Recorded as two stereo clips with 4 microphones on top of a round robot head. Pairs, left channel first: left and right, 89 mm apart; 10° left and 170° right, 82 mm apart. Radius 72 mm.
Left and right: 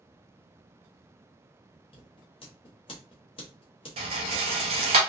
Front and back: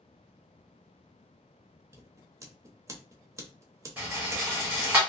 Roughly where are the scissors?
Behind left.